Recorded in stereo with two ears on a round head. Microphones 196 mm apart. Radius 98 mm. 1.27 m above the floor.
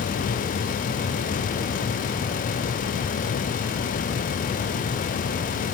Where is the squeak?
No squeak in this recording.